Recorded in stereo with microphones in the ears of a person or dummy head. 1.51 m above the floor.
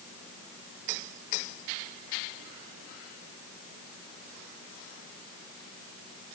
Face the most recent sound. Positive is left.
No sound to turn to.